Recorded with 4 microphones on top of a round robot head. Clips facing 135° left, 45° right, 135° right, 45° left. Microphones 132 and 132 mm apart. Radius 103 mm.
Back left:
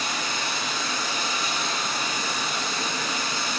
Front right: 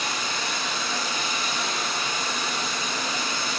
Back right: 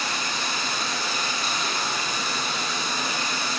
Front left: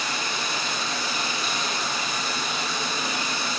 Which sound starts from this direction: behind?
Running water, at 0.0 s.